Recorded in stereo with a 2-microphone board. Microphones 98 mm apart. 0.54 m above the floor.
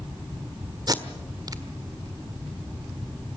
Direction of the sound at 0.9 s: 40° right (ahead or behind).